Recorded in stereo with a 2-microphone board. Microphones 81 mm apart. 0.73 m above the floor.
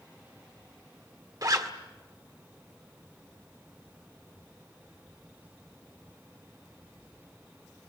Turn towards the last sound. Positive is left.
turn(degrees=-50)  # may be behind; listen again after turning